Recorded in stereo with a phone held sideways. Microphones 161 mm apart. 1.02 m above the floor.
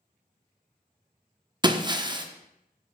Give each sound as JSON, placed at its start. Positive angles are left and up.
{"t": 1.6, "sound": "breaking glass", "side_deg": -30, "distance_m": 0.6}